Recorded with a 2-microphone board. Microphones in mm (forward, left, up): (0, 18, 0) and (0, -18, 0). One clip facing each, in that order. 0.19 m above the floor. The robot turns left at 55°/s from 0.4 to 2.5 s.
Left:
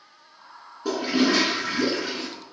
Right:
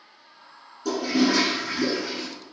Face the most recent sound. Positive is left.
turn(degrees=60)